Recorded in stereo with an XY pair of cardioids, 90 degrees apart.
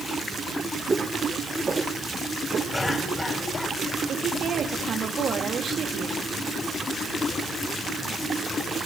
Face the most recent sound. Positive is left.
turn(degrees=-60)